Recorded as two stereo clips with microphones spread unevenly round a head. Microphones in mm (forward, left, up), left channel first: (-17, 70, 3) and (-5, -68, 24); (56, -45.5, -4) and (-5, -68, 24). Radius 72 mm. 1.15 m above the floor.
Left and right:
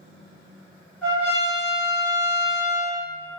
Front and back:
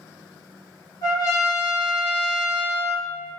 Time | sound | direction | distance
1.0 | a trumpet | straight ahead | 1.8 m